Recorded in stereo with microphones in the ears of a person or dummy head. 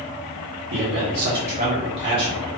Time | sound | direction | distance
0.7 | a man speaking | 55° right (ahead or behind) | 0.7 m